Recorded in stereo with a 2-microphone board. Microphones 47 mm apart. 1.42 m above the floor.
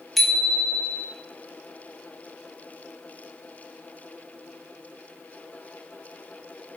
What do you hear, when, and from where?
0.2 s a bicycle bell: centre (ahead or behind), 3.5 m